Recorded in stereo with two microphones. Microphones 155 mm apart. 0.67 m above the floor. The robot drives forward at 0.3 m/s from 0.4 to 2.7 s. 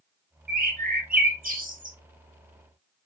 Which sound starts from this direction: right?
A bird, at 0.5 s.